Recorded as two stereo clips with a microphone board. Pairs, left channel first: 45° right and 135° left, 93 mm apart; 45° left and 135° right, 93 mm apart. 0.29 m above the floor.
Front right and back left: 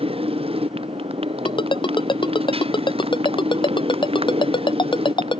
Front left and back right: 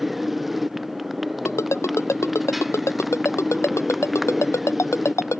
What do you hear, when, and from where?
0.0 s a motorcycle: 135° left
1.4 s a ringtone: 15° right